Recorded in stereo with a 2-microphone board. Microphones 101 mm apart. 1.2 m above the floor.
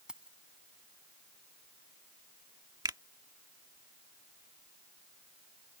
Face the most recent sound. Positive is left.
turn(degrees=-40)  # may be behind; listen again after turning